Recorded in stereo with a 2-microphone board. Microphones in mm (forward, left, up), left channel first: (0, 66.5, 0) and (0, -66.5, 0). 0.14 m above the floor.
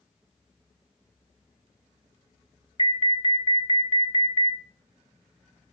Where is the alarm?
40° left (ahead or behind), 1.2 m.